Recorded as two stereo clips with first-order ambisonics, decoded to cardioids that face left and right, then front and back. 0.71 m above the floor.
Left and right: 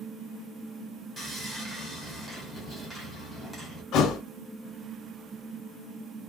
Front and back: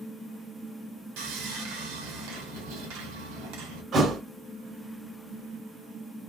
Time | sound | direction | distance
1.2 | sawing | 175° right | 1.6 m
3.9 | a thud | 125° left | 0.6 m